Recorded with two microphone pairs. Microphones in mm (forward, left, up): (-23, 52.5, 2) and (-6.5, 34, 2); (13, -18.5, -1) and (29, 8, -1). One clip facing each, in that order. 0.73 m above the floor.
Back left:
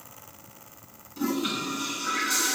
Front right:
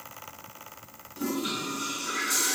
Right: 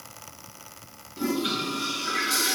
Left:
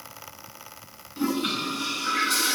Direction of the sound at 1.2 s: 70° left.